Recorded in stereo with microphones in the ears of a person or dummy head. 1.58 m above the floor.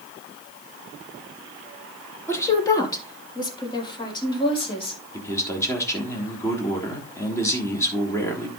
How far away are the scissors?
I don't hear scissors.